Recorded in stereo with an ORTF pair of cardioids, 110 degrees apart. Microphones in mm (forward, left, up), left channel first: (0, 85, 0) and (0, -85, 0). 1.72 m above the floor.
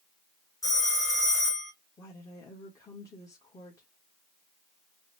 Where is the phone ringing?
15° left, 2.5 m.